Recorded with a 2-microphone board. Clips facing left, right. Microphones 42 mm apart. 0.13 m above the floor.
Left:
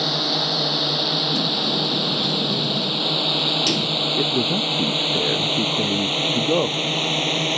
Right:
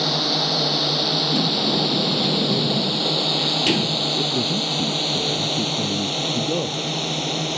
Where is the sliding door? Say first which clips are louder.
Right 1 dB; 35° right (ahead or behind).